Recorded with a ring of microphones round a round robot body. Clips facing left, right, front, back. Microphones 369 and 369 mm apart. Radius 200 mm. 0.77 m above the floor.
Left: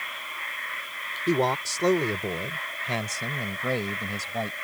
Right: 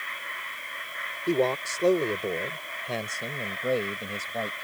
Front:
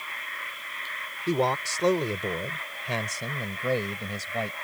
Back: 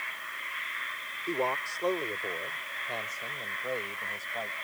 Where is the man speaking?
25° left; by 4.5 s 20° left.